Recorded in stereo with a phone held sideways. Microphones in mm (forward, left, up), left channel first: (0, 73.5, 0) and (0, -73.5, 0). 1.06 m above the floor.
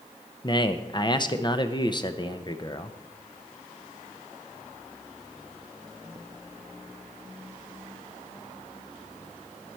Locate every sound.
0.4 s a man speaking: 30° left (ahead or behind), 0.6 m